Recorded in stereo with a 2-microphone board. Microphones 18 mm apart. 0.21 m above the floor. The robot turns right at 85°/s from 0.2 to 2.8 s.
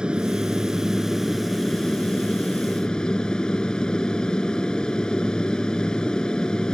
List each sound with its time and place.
0.0 s an aircraft: 95° right; by 6.8 s 125° left